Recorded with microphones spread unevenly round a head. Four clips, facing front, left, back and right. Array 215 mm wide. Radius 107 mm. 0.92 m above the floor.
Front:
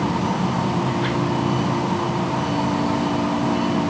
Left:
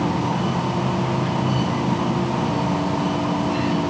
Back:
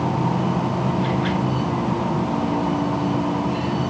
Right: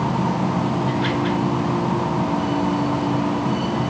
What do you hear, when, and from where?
Only background noise.